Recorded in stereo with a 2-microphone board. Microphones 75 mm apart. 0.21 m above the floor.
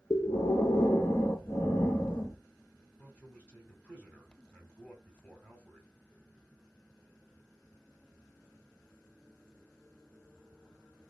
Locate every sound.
0.1 s breathing: 40° left (ahead or behind), 0.8 m
3.0 s a man speaking: 20° left (ahead or behind), 1.4 m